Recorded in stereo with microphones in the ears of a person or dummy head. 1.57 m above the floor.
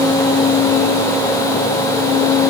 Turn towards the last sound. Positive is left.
No sound to turn to.